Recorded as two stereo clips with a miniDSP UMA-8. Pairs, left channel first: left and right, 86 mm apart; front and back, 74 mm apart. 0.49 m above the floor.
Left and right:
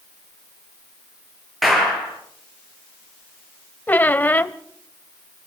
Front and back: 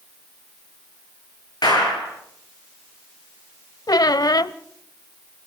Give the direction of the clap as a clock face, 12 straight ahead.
12 o'clock.